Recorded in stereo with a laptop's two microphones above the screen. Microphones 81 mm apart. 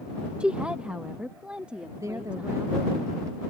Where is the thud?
No thud in this recording.